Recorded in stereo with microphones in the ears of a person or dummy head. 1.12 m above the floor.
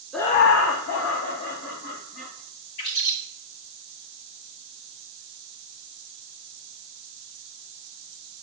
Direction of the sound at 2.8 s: 30° left (ahead or behind).